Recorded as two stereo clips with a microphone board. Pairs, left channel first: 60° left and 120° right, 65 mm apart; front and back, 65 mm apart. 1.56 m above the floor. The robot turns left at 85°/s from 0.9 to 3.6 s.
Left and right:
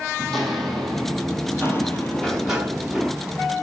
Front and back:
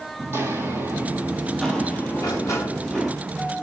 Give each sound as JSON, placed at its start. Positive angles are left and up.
{"t": 0.2, "sound": "footsteps", "azimuth_deg": 145, "distance_m": 2.5}
{"t": 2.1, "sound": "a sliding door", "azimuth_deg": -5, "distance_m": 2.5}